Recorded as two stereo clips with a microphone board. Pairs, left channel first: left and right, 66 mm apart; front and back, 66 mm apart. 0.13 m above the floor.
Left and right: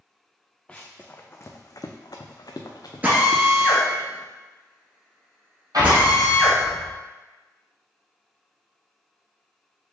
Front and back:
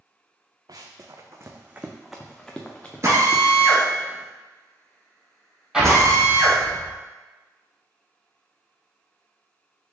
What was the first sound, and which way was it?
Running footsteps, 165° left.